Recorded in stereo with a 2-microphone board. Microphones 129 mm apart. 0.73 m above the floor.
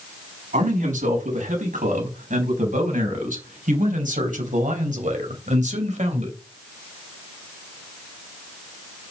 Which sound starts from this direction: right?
A man speaking, at 0.5 s.